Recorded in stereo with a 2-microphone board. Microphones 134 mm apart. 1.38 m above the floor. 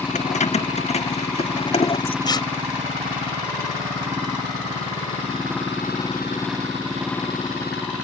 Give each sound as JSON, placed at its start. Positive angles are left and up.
{"t": 0.1, "sound": "keys jangling", "side_deg": 60}
{"t": 2.2, "sound": "tearing paper", "side_deg": 30}